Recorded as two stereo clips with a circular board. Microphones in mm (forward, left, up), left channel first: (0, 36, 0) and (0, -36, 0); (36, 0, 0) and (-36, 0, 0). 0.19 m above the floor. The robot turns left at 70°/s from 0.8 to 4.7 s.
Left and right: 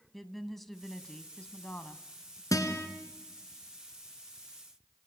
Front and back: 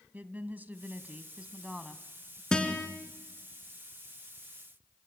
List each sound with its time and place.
0.1 s a woman speaking: 175° left, 1.1 m; by 2.4 s 65° left, 1.1 m
2.5 s a guitar: 80° left, 2.5 m; by 2.9 s 50° left, 2.5 m